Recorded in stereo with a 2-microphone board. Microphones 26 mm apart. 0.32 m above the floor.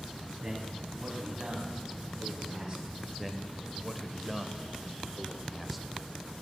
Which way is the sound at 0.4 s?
15° right (ahead or behind).